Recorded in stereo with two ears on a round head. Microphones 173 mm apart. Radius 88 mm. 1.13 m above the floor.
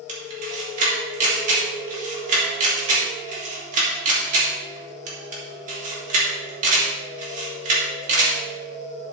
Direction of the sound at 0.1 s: 40° right (ahead or behind).